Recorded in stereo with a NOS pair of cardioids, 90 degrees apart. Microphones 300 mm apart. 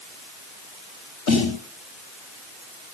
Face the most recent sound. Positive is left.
turn(degrees=65)